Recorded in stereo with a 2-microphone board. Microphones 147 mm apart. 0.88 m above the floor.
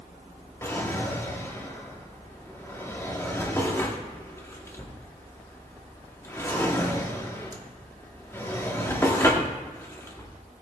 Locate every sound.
0.6 s a drawer: 15° left (ahead or behind), 1.0 m